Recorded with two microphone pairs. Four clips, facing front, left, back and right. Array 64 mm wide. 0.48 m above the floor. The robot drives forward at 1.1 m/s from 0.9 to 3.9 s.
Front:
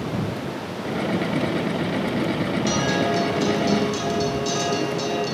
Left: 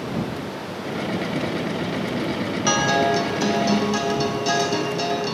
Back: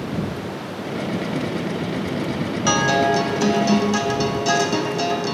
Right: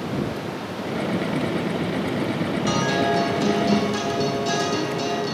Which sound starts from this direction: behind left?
A guitar, at 2.7 s.